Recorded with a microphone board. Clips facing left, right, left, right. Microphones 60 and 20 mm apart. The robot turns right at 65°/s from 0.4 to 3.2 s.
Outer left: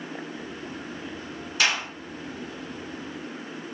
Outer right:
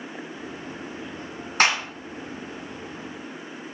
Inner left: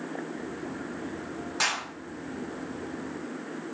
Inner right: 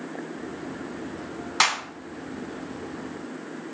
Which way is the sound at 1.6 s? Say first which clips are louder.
Outer right 4 dB, inner right 6 dB; 45° right (ahead or behind).